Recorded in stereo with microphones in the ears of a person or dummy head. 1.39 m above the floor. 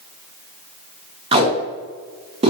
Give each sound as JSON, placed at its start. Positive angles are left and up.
{"t": 1.3, "sound": "tape being pulled", "side_deg": -35, "distance_m": 0.7}